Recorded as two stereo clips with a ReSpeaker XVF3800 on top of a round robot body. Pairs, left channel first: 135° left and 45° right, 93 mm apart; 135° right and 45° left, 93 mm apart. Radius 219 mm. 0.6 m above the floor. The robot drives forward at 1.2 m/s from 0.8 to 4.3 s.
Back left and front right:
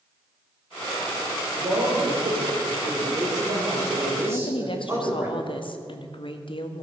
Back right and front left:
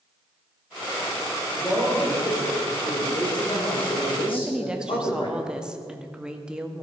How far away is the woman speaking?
About 1.7 m.